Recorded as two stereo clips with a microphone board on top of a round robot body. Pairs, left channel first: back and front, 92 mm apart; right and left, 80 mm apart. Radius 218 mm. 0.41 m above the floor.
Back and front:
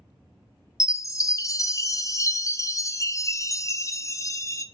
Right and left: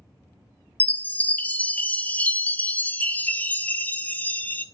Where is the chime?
150° right, 0.5 m.